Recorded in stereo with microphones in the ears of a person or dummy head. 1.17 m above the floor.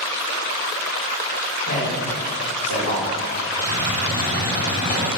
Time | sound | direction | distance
1.7 | a man speaking | 60° left (ahead or behind) | 1.4 m
3.6 | a hiss | 40° left (ahead or behind) | 0.8 m